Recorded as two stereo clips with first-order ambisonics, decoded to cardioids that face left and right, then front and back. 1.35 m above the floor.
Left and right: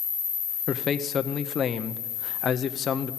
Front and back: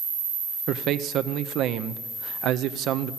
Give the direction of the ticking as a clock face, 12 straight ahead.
No ticking in this recording.